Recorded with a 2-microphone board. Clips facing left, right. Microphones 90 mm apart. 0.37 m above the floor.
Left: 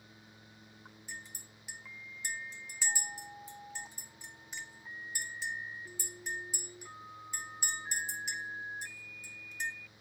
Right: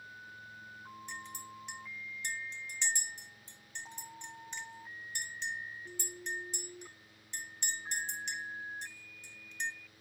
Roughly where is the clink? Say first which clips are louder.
Right 2 dB; centre.